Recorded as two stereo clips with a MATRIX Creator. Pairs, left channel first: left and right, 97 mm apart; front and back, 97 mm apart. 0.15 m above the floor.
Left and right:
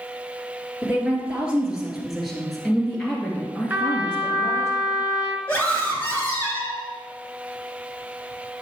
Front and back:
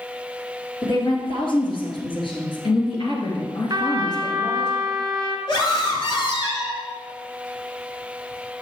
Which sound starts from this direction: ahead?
A woman speaking, at 0.8 s.